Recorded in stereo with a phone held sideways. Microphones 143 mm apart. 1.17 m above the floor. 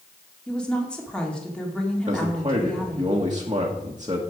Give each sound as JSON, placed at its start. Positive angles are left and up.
{"t": 0.5, "sound": "a woman speaking", "side_deg": 5, "distance_m": 2.0}
{"t": 2.1, "sound": "a man speaking", "side_deg": -30, "distance_m": 1.4}